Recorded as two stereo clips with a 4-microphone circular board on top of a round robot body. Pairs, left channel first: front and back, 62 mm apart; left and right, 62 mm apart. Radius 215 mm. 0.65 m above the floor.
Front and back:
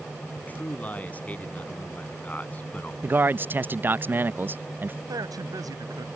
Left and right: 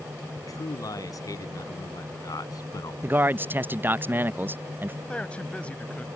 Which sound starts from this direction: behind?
A man speaking, at 5.1 s.